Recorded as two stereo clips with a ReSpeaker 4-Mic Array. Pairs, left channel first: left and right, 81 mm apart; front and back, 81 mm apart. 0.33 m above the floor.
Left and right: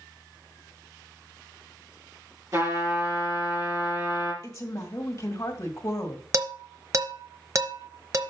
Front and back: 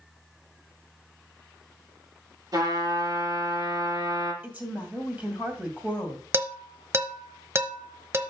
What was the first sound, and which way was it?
A trumpet, 140° right.